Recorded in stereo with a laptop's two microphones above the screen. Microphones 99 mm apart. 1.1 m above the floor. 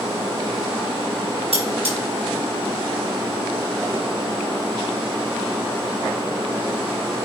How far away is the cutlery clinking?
About 4.5 m.